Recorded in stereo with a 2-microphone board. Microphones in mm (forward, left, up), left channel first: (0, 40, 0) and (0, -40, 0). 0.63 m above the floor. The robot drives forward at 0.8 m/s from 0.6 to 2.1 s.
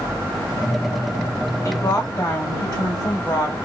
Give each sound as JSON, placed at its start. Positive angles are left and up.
{"t": 1.6, "sound": "a woman speaking", "side_deg": 35, "distance_m": 2.0}